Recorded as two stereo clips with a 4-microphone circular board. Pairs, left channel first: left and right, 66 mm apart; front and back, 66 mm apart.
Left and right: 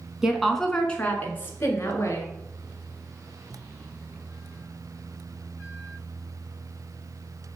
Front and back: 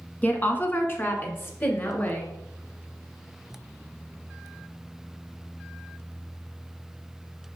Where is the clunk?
I don't hear a clunk.